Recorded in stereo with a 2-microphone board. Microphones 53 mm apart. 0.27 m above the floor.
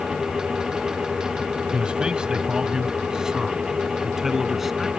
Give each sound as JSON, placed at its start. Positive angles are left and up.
{"t": 1.7, "sound": "a man speaking", "side_deg": -20}